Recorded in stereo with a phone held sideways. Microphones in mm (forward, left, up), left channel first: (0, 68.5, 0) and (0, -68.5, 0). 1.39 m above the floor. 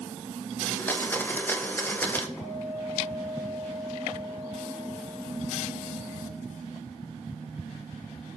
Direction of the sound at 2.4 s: 25° left (ahead or behind).